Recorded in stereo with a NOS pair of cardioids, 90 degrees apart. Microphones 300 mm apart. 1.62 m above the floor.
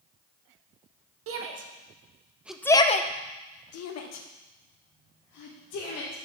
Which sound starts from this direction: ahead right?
A shout, at 1.3 s.